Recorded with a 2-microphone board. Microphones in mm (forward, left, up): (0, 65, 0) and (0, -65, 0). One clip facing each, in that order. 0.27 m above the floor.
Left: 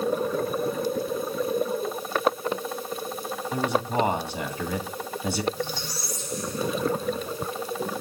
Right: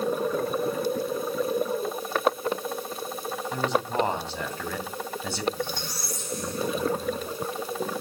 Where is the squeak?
55° right (ahead or behind), 6 m.